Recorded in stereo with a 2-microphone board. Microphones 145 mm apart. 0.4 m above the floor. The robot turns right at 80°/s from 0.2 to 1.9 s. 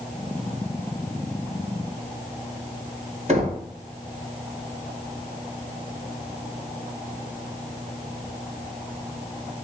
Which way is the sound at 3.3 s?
55° right (ahead or behind).